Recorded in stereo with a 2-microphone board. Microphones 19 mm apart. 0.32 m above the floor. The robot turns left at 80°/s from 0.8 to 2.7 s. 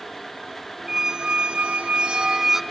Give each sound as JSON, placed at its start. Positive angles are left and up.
{"t": 0.9, "sound": "a squeak", "azimuth_deg": -25, "distance_m": 0.5}